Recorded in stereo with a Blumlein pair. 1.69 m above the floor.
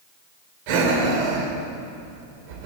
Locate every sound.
0.7 s breathing: 45° right, 6.5 m